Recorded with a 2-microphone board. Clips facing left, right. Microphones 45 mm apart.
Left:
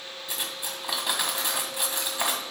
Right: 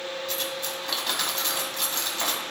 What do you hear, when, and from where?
0.3 s cutlery clinking: 15° left (ahead or behind), 1.8 m